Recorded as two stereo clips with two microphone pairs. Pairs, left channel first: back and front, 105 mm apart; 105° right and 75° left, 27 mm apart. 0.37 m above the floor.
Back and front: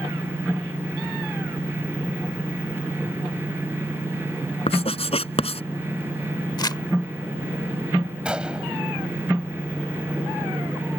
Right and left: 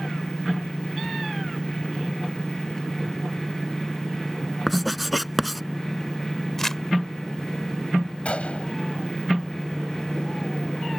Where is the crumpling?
170° right.